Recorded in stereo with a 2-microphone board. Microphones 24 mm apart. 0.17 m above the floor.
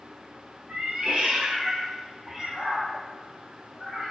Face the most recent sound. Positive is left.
turn(degrees=30)  # may be behind; listen again after turning